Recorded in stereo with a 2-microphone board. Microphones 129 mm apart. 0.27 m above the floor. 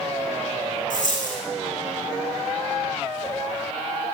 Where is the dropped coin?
80° left, 3 m.